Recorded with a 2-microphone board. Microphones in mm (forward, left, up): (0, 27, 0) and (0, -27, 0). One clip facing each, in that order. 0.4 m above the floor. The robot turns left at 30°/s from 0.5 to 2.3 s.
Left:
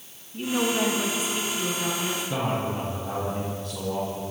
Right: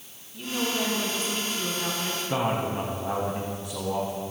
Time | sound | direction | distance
0.3 | a woman speaking | 35° left | 4 m
2.3 | a man speaking | 20° right (ahead or behind) | 2.5 m